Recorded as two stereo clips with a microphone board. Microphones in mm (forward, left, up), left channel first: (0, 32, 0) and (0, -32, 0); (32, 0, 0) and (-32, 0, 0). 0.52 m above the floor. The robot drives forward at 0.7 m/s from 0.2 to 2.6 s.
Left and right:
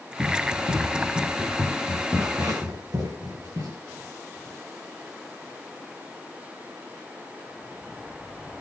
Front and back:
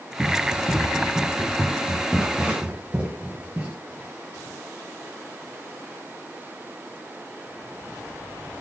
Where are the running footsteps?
90° right, 9.5 m; by 3.8 s 115° right, 7.5 m.